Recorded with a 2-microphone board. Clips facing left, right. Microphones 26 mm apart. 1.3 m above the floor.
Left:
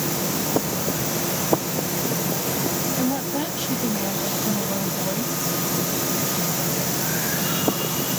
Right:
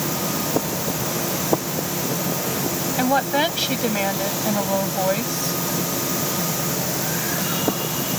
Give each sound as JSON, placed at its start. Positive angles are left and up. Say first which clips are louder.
{"t": 3.0, "sound": "a woman speaking", "louder": "right 9 dB", "side_deg": -70}